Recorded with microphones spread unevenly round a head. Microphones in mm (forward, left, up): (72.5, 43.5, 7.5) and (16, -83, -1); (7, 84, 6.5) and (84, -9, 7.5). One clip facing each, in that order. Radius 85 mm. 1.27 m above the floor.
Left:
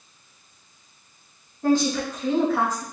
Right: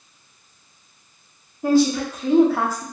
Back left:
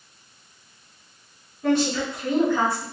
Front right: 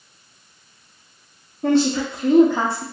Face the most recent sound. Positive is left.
turn(degrees=-50)